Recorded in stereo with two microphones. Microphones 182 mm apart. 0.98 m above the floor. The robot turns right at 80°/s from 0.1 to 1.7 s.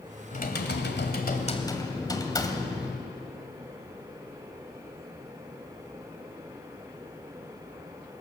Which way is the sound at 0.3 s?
45° left.